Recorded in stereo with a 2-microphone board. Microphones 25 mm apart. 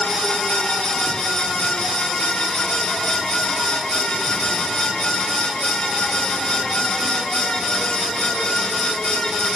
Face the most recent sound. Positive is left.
No sound to turn to.